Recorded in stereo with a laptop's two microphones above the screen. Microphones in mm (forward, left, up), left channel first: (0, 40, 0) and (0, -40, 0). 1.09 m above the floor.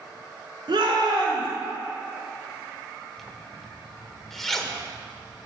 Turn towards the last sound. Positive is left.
turn(degrees=5)  # may be behind; listen again after turning